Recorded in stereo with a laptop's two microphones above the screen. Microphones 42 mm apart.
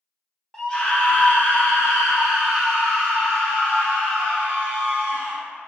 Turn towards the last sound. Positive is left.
turn(degrees=50)  # may be behind; listen again after turning